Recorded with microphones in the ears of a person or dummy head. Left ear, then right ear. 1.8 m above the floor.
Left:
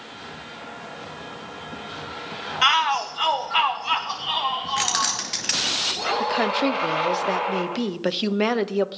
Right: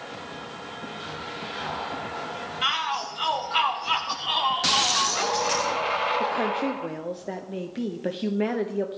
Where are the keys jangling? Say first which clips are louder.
Right 1 dB; 35° left (ahead or behind), 1.4 m.